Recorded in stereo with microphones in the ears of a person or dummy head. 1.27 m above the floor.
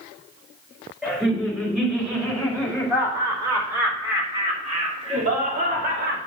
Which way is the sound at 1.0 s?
5° right (ahead or behind).